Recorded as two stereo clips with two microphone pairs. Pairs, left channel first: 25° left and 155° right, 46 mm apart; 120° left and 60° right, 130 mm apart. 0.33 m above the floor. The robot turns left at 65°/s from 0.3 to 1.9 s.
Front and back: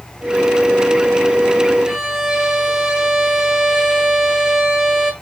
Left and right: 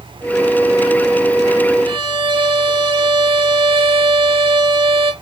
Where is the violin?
75° right, 0.8 m.